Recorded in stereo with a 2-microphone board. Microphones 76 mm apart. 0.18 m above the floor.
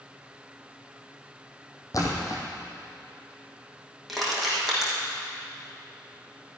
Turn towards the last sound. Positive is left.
turn(degrees=0)  # may be behind; listen again after turning